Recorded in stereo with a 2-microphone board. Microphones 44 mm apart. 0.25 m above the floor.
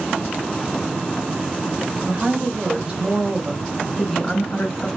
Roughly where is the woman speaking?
Right.